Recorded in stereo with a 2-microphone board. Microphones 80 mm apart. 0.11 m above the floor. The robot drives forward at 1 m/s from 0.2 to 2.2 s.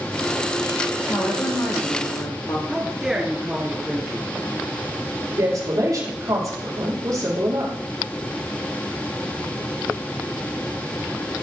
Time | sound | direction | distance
1.1 | a woman speaking | 40° left (ahead or behind) | 4 m
2.7 | a man speaking | 10° right (ahead or behind) | 1.3 m
5.4 | a woman speaking | 55° right (ahead or behind) | 4 m